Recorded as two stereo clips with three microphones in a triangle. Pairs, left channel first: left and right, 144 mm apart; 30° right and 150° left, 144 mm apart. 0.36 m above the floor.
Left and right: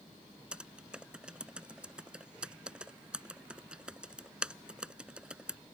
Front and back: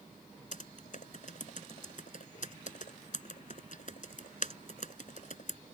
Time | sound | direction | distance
0.5 | typing on a keyboard | 5° right | ?